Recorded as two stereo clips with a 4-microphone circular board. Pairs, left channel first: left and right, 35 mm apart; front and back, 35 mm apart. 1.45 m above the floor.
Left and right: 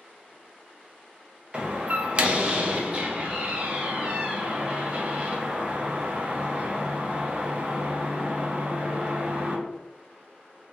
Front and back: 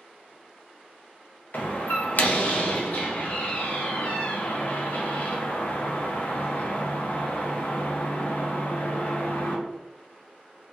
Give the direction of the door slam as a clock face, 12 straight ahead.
1 o'clock.